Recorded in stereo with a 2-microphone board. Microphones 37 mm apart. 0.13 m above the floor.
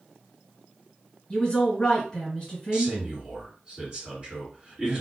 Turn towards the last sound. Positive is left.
turn(degrees=-25)  # may be behind; listen again after turning